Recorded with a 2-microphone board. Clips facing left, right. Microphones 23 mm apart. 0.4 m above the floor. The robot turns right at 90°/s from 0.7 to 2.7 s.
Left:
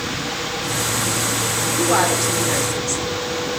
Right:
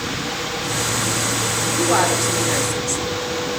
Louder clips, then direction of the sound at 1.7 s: Even; 5° left (ahead or behind).